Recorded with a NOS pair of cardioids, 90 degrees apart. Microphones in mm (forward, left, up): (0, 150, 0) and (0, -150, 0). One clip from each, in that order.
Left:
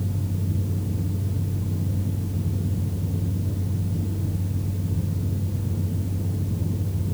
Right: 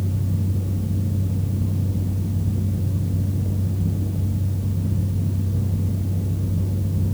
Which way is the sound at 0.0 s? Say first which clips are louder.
Right 3 dB; 70° right.